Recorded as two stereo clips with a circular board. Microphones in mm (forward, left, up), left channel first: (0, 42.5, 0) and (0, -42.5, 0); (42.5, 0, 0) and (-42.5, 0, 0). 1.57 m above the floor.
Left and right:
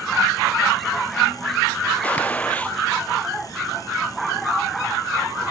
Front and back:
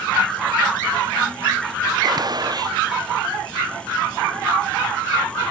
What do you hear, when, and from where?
2.0 s a gunshot: 160° left, 0.6 m